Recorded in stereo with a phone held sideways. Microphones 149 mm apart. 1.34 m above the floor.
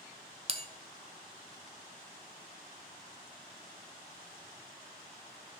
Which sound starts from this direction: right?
A bell, at 0.5 s.